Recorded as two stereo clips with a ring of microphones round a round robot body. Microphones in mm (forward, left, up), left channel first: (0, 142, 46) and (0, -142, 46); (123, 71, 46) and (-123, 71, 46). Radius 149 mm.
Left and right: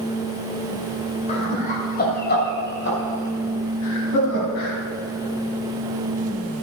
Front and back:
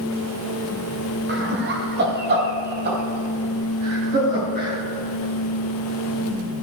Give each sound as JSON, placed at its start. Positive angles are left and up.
{"t": 1.3, "sound": "laughter", "azimuth_deg": 150, "distance_m": 2.0}